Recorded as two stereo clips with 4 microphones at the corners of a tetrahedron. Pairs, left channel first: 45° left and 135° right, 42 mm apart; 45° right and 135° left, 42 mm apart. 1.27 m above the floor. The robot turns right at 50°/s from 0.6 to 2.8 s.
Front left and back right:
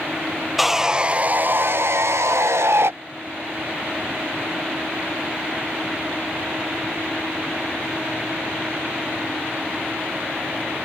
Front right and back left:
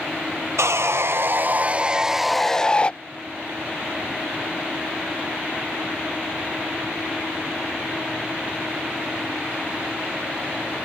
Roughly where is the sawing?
Behind left.